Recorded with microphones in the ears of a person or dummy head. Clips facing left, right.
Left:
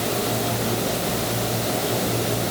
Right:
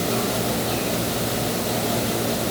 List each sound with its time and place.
Only background noise.